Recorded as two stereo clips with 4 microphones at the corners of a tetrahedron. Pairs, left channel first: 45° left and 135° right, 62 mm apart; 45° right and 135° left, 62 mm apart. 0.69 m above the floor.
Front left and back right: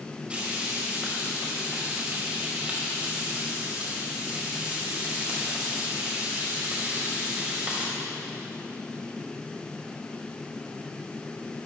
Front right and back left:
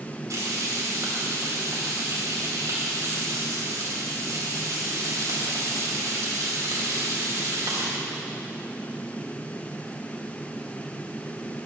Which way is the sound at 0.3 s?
155° left.